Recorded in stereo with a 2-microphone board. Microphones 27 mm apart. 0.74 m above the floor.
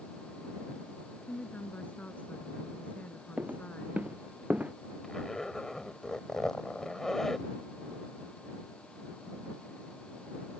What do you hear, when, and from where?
1.3 s a woman speaking: 60° left (ahead or behind)
3.4 s footsteps: 65° right (ahead or behind); by 4.7 s 70° right (ahead or behind)
5.0 s a zipper: 15° left (ahead or behind)